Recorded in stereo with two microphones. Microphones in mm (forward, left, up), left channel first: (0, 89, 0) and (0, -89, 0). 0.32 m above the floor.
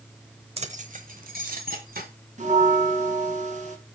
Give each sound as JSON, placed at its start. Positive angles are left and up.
{"t": 0.6, "sound": "keys jangling", "side_deg": -35, "distance_m": 0.9}
{"t": 2.4, "sound": "a bell", "side_deg": -45, "distance_m": 2.5}